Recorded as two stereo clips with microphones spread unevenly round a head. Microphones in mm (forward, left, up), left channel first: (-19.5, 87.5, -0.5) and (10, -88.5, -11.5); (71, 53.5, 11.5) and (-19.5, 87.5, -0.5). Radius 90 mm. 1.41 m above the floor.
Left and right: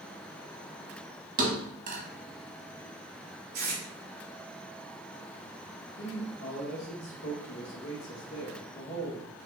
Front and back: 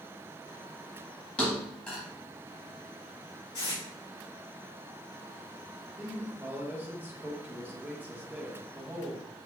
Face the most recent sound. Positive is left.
turn(degrees=85)